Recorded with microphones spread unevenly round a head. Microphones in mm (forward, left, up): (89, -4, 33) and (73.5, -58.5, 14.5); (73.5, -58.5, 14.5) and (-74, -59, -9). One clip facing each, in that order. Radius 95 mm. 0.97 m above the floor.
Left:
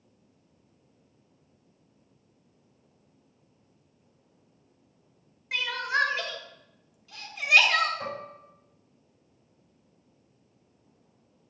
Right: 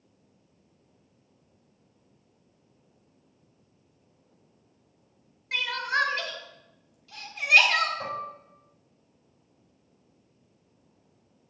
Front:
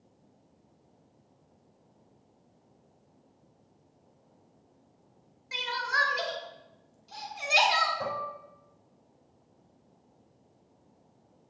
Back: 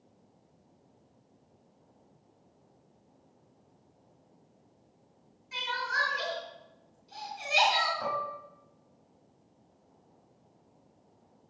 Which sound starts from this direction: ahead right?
Dishes clattering, at 8.0 s.